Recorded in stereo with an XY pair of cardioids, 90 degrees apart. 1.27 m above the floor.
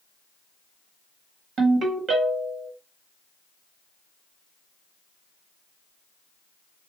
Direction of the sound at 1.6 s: 70° right.